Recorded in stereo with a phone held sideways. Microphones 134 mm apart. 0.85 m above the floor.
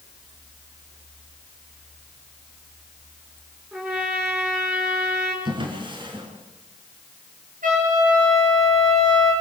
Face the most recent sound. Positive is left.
turn(degrees=-75)  # may be behind; listen again after turning